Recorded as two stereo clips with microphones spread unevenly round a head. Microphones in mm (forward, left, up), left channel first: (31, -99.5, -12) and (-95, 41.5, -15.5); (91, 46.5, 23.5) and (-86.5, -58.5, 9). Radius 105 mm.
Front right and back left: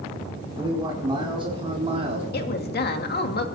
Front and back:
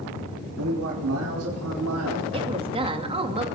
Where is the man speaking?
160° right, 5 m; by 2.2 s 170° right, 3.5 m.